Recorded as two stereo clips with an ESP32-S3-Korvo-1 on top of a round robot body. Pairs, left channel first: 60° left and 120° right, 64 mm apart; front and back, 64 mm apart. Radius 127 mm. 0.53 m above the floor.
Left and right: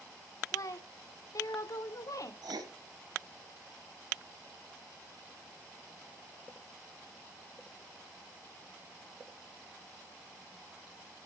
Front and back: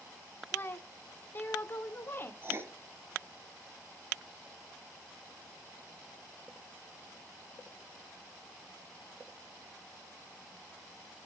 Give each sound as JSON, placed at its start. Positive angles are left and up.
{"t": 0.5, "sound": "a woman speaking", "azimuth_deg": 50, "distance_m": 2.0}
{"t": 2.4, "sound": "writing", "azimuth_deg": -125, "distance_m": 1.9}